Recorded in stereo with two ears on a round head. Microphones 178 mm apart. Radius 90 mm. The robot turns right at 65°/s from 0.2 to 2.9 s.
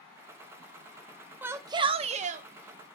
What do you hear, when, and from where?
1.4 s a shout: 165° right, 0.6 m; by 3.0 s 70° right, 0.6 m